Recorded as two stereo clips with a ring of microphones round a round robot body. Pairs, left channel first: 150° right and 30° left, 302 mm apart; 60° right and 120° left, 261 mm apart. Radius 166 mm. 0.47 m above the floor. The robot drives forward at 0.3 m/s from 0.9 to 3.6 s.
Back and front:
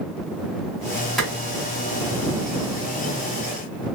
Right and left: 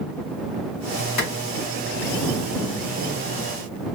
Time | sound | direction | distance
1.2 | a clap | 60° right | 1.6 m